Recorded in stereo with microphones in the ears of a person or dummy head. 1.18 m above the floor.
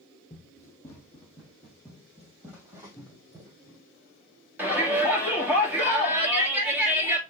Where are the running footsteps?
20° left (ahead or behind), 2 m; by 3.8 s 25° right (ahead or behind), 3 m.